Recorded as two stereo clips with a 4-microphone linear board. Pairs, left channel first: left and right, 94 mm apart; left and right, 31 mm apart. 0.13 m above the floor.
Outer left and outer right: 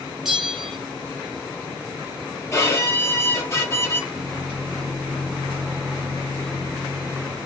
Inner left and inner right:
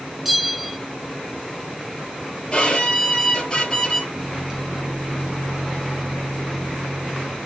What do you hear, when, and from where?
0.2 s a bell: 5° right (ahead or behind), 1.4 m
2.5 s a violin: 30° left (ahead or behind), 2.5 m
4.1 s a microwave: 15° right (ahead or behind), 2.5 m